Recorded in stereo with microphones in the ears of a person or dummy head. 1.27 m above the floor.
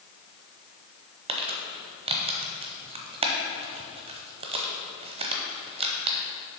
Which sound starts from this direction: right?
Crumpling, at 1.3 s.